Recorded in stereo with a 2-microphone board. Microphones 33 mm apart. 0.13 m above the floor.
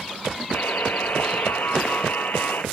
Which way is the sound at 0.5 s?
70° left (ahead or behind).